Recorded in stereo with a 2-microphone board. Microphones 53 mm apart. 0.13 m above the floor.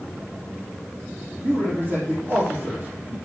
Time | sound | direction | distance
1.4 | a man speaking | 35° right (ahead or behind) | 3.5 m